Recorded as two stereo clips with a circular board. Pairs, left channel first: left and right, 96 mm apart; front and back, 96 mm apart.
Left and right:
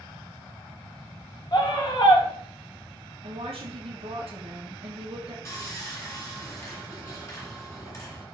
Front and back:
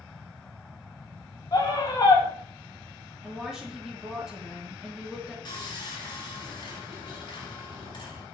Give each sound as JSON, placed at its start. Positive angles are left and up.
{"t": 1.5, "sound": "a scream", "azimuth_deg": 50, "distance_m": 2.5}
{"t": 3.2, "sound": "a woman speaking", "azimuth_deg": -95, "distance_m": 2.5}
{"t": 5.5, "sound": "sawing", "azimuth_deg": 35, "distance_m": 3.0}